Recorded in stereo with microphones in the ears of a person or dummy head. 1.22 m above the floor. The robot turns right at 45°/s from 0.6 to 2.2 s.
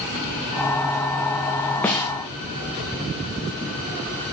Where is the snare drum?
10° left (ahead or behind), 0.6 m; by 2.1 s 15° left (ahead or behind), 0.6 m.